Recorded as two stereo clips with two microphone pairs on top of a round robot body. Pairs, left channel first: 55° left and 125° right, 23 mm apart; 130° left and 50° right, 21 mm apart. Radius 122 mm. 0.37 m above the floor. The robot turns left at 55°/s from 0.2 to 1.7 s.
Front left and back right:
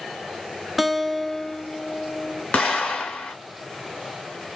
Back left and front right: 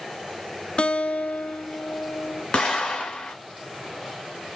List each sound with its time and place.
0.8 s a guitar: 160° left, 0.7 m; by 2.4 s 105° left, 0.7 m
2.5 s an explosion: 85° left, 0.7 m